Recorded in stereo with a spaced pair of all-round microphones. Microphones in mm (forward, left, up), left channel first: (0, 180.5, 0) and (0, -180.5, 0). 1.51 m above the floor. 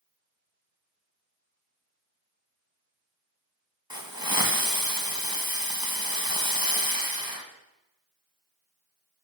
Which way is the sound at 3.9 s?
50° left (ahead or behind).